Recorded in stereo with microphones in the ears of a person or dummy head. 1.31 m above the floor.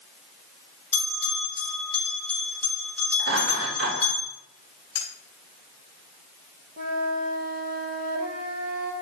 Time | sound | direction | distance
0.9 | a bell | 10° left (ahead or behind) | 4 m
3.2 | laughter | 60° right (ahead or behind) | 4.5 m
5.0 | cutlery clinking | 30° left (ahead or behind) | 2.5 m
6.8 | a flute | 55° right (ahead or behind) | 1.7 m